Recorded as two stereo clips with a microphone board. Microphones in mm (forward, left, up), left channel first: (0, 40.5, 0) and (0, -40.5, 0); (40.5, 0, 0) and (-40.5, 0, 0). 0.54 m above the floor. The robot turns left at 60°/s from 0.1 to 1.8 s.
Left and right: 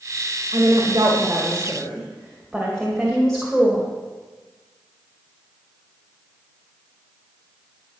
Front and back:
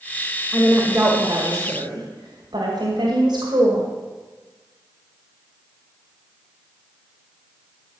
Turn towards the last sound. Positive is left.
turn(degrees=180)